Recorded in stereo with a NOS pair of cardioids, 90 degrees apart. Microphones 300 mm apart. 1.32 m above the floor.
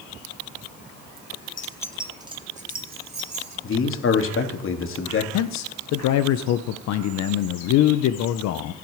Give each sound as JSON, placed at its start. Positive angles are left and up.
{"t": 1.6, "sound": "keys jangling", "azimuth_deg": 30, "distance_m": 0.9}
{"t": 3.6, "sound": "a man speaking", "azimuth_deg": 45, "distance_m": 2.0}
{"t": 5.3, "sound": "a man speaking", "azimuth_deg": 70, "distance_m": 0.7}